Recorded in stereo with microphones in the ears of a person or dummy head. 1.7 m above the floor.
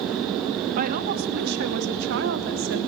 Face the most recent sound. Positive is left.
turn(degrees=-65)  # may be behind; listen again after turning